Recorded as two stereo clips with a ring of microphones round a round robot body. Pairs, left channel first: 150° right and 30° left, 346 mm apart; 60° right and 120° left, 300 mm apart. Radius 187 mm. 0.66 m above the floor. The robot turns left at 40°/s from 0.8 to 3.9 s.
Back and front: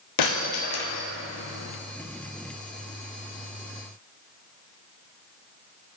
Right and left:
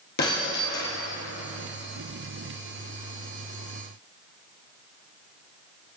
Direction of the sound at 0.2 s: 125° right.